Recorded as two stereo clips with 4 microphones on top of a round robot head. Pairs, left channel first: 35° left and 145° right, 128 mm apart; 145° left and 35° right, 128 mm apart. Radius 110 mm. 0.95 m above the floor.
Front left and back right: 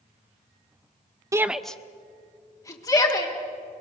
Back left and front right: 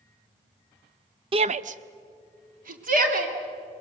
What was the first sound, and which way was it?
A shout, 80° right.